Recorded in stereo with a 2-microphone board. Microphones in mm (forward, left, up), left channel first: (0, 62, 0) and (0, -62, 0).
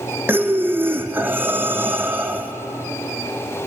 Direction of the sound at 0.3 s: 15° right (ahead or behind).